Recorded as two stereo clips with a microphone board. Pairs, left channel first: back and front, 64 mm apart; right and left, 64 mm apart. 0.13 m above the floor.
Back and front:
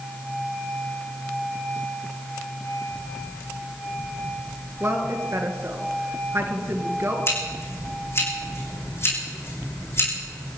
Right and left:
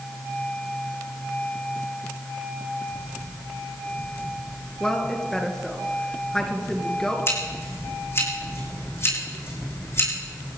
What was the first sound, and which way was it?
A woman speaking, 15° right.